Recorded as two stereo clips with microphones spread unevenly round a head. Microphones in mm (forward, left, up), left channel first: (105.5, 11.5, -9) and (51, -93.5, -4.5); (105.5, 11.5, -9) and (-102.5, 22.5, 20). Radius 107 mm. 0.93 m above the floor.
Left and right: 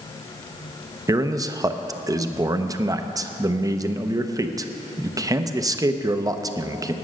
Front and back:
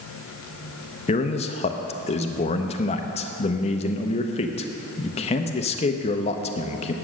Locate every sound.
1.1 s a man speaking: 60° right, 0.8 m